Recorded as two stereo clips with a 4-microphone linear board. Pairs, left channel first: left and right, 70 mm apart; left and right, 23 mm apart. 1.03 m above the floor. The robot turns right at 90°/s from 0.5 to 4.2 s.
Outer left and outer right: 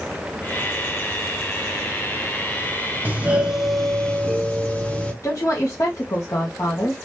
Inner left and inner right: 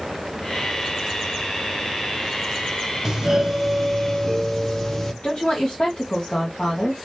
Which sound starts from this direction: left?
A woman speaking, at 5.2 s.